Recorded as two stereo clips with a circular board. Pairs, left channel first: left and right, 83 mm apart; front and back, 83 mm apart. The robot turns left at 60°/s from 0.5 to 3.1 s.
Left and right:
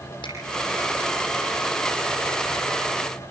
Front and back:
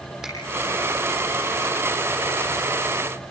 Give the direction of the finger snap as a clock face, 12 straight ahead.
9 o'clock.